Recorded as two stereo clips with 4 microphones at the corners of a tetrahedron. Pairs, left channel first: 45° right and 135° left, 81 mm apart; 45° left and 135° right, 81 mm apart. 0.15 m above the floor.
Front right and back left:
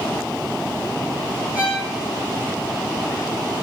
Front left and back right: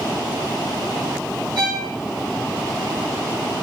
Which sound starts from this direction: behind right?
A violin, at 1.6 s.